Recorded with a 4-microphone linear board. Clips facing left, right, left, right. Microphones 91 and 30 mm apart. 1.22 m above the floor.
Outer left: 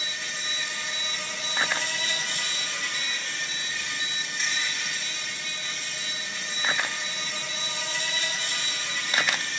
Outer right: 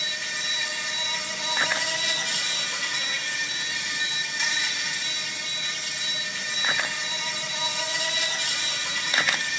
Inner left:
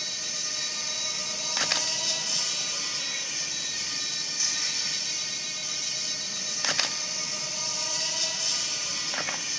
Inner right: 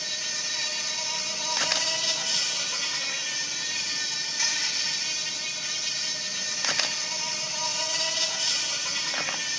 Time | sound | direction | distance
0.0 | an insect | 85° right | 4 m